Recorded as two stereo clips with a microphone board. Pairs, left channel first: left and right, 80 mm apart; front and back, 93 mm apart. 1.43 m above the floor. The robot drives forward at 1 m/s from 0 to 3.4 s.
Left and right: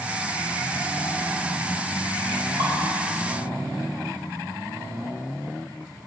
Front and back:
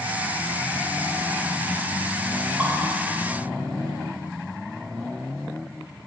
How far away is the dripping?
About 3.5 m.